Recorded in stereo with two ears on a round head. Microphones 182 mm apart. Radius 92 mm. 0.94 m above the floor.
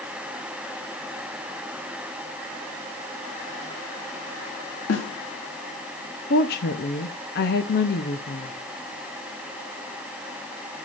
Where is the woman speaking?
55° left (ahead or behind), 1.2 m.